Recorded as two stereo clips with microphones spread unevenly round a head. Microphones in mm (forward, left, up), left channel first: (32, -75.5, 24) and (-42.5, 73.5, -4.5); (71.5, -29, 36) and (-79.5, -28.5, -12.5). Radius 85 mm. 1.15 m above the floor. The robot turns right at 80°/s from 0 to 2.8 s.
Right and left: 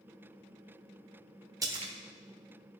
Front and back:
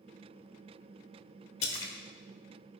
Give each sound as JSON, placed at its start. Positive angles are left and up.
{"t": 1.6, "sound": "a splash", "azimuth_deg": 55, "distance_m": 1.2}